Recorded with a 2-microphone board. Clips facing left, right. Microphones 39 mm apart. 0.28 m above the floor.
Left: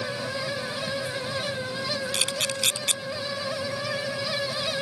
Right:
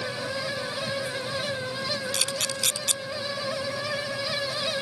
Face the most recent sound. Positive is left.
turn(degrees=30)  # may be behind; listen again after turning